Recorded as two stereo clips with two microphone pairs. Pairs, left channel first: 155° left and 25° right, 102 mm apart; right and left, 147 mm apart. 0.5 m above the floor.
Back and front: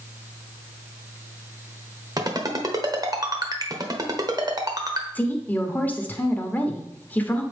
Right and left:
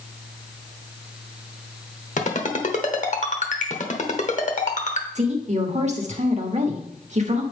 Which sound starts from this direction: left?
A woman speaking, at 5.2 s.